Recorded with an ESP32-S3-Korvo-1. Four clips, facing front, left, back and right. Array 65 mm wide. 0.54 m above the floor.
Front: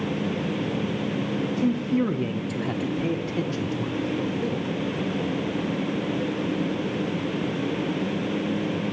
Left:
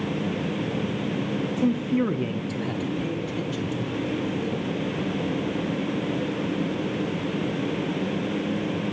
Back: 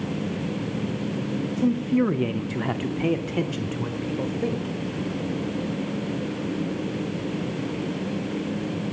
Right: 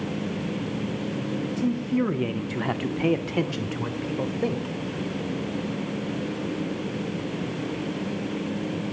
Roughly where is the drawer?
No drawer in this recording.